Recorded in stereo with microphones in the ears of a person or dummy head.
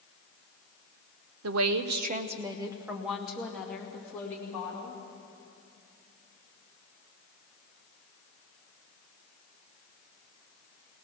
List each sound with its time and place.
1.4 s a woman speaking: 80° right, 0.9 m; by 5.0 s 15° left (ahead or behind), 3.5 m